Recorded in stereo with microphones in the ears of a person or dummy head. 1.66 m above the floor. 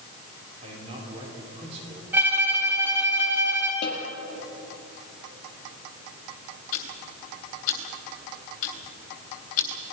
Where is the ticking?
50° left (ahead or behind), 2.5 m.